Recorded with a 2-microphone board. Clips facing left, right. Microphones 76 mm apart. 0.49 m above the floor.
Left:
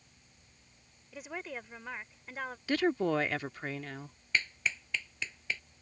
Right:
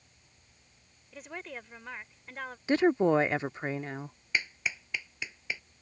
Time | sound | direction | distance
1.1 | a woman speaking | 5° left (ahead or behind) | ?
2.7 | a woman speaking | 20° right (ahead or behind) | ?
4.3 | a clap | 15° right (ahead or behind) | ?